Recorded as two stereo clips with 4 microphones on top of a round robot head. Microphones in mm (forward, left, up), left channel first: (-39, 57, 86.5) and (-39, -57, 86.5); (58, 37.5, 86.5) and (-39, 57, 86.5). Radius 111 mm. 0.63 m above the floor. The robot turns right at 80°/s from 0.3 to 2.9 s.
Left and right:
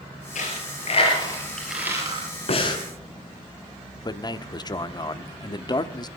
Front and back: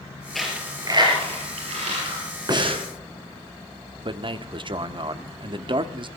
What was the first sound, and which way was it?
A dropped coin, 75° left.